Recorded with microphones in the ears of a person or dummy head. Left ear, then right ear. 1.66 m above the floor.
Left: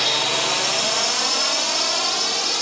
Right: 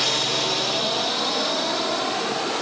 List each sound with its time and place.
0.0 s a drone: 25° left (ahead or behind); by 2.6 s 75° left (ahead or behind)